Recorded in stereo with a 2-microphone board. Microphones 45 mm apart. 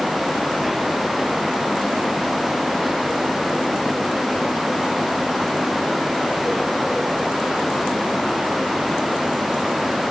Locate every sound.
Only background noise.